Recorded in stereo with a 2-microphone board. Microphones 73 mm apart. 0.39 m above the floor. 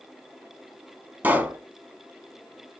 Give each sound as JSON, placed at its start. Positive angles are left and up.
{"t": 1.2, "sound": "a pop", "side_deg": -25, "distance_m": 0.6}